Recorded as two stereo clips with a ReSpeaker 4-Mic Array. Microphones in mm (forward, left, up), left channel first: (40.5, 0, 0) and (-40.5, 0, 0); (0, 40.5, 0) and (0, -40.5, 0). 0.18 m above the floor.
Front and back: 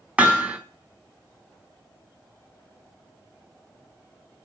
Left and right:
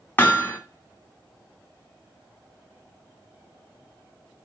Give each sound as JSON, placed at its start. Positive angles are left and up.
{"t": 0.2, "sound": "hammering", "azimuth_deg": 120, "distance_m": 0.9}